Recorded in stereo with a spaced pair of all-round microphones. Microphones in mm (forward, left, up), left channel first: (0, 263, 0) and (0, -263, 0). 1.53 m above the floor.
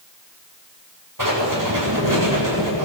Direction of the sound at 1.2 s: 35° right (ahead or behind).